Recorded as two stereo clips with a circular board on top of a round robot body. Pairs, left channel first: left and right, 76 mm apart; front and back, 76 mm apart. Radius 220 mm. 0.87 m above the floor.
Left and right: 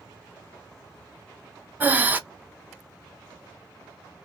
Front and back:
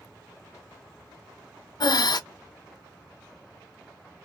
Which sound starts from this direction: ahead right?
Breathing, at 1.8 s.